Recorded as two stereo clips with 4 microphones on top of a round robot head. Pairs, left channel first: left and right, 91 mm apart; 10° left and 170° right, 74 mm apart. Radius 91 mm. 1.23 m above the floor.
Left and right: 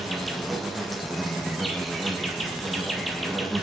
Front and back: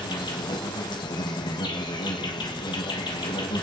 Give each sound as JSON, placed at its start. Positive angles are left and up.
{"t": 0.0, "sound": "an insect", "azimuth_deg": 0, "distance_m": 2.0}